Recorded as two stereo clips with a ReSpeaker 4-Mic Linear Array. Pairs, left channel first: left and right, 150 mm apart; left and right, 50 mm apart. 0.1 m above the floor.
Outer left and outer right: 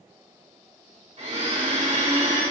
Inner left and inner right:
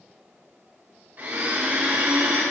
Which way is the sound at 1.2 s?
45° right (ahead or behind).